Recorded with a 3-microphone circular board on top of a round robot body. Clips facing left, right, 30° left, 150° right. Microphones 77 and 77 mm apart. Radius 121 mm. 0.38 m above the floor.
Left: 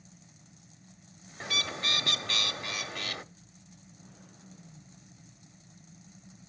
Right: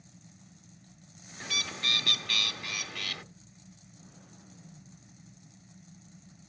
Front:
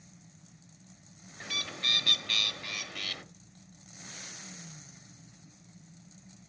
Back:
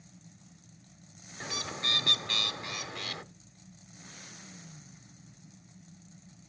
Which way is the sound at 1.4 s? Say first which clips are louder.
Left 2 dB, back 2 dB; 150° left.